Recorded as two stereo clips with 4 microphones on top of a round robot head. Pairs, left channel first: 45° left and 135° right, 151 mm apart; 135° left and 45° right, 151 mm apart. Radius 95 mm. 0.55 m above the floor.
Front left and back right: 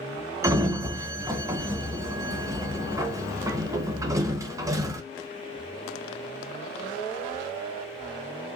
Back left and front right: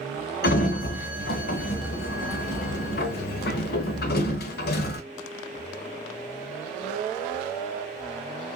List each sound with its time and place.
0.4 s a sliding door: 155° left, 0.9 m